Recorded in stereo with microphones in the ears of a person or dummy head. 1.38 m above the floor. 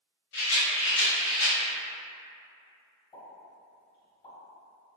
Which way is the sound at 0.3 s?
70° left (ahead or behind).